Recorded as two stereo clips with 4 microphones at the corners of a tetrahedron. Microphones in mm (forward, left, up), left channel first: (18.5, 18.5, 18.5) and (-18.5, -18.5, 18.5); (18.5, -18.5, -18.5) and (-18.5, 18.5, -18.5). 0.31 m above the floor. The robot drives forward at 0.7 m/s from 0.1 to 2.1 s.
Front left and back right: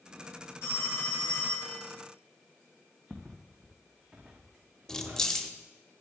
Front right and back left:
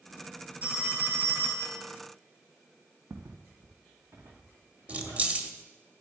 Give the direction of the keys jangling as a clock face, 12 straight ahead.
8 o'clock.